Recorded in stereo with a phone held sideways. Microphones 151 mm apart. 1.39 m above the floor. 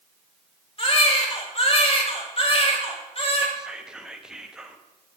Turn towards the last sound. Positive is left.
turn(degrees=-5)  # may be behind; listen again after turning